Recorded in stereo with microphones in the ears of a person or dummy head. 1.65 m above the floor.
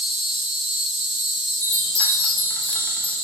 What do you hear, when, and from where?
0.0 s an insect: 30° right (ahead or behind), 1.8 m
1.6 s a chime: 5° left (ahead or behind), 0.7 m